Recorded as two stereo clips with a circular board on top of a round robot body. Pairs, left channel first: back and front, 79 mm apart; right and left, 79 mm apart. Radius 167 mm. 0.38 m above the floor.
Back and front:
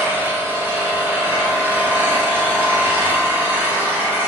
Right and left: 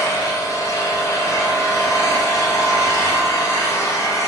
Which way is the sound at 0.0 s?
55° right.